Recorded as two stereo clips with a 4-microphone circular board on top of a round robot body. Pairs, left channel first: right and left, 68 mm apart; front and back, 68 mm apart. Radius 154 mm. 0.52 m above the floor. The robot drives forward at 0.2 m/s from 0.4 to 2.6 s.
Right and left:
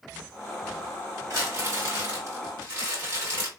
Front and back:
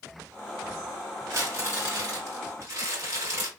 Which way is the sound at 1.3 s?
135° left.